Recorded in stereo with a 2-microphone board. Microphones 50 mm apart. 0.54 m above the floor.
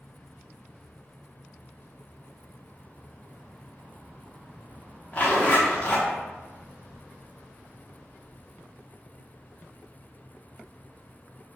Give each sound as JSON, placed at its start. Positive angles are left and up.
{"t": 5.1, "sound": "a zipper", "side_deg": 30, "distance_m": 1.0}